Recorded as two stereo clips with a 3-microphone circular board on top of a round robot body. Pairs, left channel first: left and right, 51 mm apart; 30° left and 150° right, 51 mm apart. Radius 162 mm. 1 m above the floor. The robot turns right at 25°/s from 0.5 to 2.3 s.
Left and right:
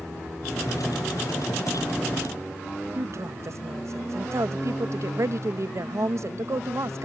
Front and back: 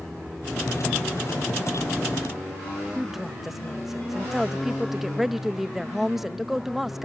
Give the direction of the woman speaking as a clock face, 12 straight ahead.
2 o'clock.